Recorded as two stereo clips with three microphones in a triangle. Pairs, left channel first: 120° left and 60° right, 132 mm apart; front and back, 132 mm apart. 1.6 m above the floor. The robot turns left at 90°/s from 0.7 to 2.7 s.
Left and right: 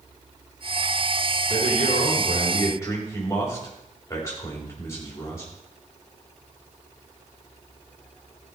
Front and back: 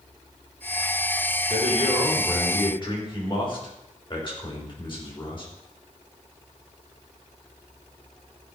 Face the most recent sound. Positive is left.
turn(degrees=50)